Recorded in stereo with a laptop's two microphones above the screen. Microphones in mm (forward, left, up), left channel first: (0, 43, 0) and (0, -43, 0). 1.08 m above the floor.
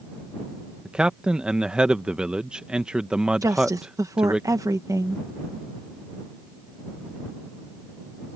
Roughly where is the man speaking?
Centre.